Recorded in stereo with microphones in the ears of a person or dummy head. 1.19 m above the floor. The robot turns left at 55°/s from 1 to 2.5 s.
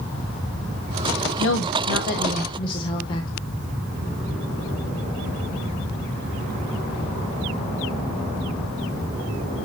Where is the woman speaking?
95° left, 1.0 m; by 3.3 s 35° left, 1.0 m.